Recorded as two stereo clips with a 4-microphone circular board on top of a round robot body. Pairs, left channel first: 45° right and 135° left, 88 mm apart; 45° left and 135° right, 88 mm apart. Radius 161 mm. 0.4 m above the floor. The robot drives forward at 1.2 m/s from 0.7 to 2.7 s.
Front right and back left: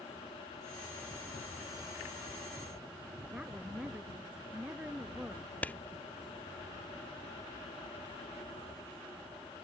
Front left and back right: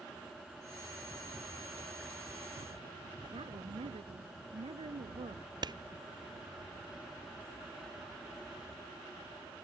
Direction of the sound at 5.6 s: 115° right.